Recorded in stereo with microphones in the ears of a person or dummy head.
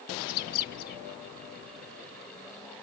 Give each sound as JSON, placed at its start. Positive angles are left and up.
{"t": 0.2, "sound": "a bird", "side_deg": 55, "distance_m": 1.7}